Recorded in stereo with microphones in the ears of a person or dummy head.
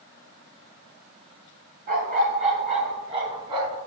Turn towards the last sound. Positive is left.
turn(degrees=-25)  # may be behind; listen again after turning